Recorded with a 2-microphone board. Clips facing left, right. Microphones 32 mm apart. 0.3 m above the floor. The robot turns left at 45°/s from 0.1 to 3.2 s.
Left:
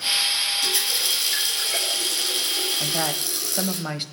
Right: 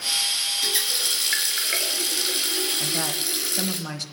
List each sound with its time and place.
0.6 s a running tap: 25° right, 3.5 m; by 3.8 s 145° right, 3.5 m
2.8 s a woman speaking: 20° left (ahead or behind), 1.4 m; by 4.0 s 30° left (ahead or behind), 1.4 m